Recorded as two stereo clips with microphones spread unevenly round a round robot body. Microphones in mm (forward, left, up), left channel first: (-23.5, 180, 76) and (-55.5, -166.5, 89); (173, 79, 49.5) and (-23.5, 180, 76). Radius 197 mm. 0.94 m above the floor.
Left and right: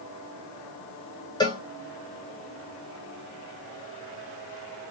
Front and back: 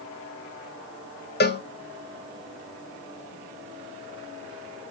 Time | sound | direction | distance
1.4 | a cowbell | 10° left | 0.9 m